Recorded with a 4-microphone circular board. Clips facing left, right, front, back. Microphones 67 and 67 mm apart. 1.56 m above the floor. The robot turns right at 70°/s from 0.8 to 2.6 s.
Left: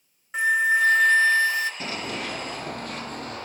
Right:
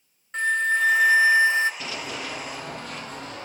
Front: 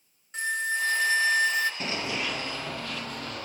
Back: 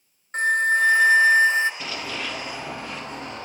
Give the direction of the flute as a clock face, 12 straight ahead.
6 o'clock.